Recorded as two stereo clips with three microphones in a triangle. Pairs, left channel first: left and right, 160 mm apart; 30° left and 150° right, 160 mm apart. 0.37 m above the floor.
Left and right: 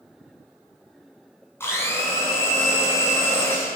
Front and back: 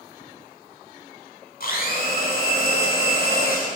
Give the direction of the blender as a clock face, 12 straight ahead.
11 o'clock.